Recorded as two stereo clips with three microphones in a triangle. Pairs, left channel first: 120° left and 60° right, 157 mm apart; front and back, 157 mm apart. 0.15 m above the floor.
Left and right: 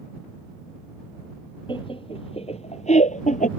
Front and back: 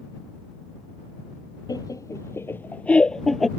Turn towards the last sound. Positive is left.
turn(degrees=90)